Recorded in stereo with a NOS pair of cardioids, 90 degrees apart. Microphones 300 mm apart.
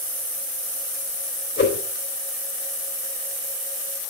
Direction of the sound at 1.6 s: 40° left.